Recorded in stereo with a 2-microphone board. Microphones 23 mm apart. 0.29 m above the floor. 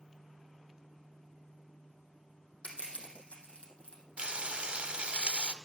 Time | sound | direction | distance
2.6 | crushing | 65° left (ahead or behind) | 3.5 m
4.2 | frying | 55° right (ahead or behind) | 0.8 m